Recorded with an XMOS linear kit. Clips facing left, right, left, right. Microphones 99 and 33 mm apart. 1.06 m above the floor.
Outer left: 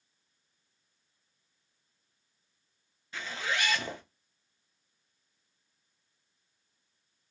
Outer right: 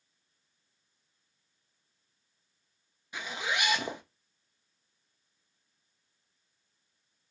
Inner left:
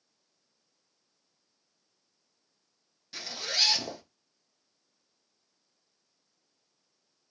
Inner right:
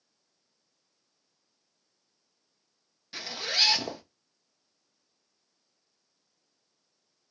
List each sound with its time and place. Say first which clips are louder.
3.1 s a zipper: even, inner right 2 dB; 15° right (ahead or behind), 0.6 m